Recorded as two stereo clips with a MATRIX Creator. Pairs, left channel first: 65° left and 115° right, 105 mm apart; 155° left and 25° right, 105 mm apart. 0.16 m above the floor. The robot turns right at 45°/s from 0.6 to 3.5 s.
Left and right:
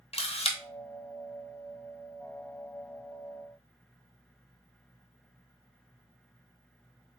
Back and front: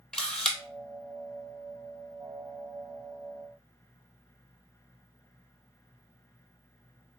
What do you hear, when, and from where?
0.1 s a camera shutter: 75° left, 0.8 m